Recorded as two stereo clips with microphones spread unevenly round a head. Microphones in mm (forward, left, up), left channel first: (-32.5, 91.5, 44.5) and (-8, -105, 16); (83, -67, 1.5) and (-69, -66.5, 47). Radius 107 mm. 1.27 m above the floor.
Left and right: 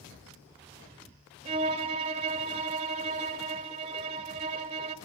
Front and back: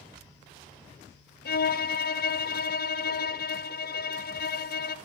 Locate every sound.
1.4 s a violin: 15° right, 1.6 m